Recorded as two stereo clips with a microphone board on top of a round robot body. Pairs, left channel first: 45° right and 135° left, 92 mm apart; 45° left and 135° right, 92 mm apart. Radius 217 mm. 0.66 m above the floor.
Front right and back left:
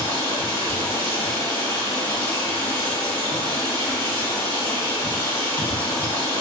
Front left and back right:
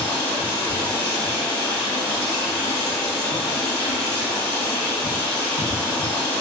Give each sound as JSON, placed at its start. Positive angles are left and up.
{"t": 0.0, "sound": "running water", "azimuth_deg": 0, "distance_m": 1.9}